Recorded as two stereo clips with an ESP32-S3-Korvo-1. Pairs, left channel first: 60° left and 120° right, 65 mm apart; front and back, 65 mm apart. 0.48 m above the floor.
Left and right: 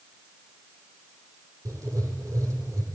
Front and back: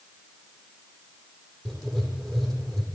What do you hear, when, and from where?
1.6 s writing: 85° right, 7.5 m